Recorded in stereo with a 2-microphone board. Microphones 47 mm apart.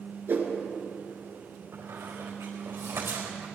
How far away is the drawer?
I don't hear a drawer.